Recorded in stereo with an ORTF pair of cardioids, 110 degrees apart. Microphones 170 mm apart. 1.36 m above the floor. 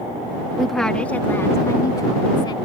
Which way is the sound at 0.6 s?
Straight ahead.